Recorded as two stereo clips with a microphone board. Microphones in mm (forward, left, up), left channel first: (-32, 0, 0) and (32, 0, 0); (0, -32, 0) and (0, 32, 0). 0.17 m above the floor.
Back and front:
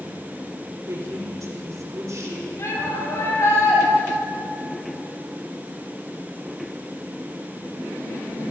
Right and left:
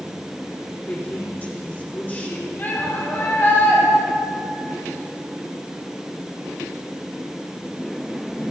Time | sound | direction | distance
0.9 | a woman speaking | 30° right | 5 m
2.6 | a shout | 145° right | 6 m